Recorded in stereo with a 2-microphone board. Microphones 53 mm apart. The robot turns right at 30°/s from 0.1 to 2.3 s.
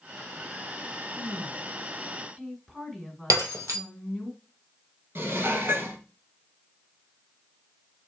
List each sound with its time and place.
1.1 s a woman speaking: 45° right, 1.9 m; by 4.3 s 10° right, 1.9 m
3.3 s breaking glass: 75° right (ahead or behind), 1.5 m
5.2 s dishes clattering: 50° right (ahead or behind), 1.9 m